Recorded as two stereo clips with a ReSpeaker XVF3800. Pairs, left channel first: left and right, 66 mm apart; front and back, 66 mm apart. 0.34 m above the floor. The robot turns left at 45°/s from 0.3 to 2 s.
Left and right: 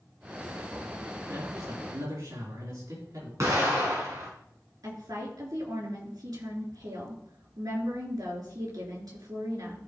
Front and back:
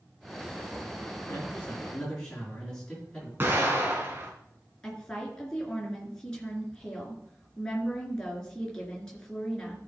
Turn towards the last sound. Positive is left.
turn(degrees=-80)